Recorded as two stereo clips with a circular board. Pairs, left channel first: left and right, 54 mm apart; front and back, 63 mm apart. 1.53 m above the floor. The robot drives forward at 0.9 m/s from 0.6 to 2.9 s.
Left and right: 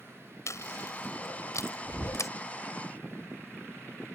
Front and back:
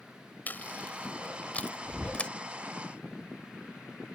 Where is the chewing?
65° left; by 2.3 s 75° left.